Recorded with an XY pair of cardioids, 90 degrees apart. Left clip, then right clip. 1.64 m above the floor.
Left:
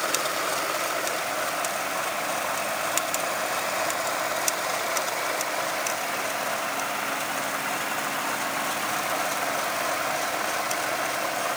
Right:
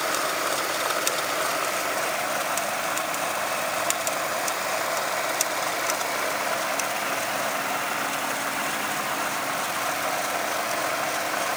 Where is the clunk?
I don't hear a clunk.